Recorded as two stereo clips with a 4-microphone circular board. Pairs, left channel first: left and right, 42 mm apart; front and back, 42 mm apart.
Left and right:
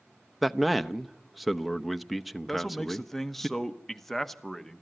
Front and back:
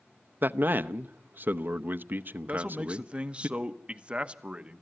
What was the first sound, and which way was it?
A man speaking, straight behind.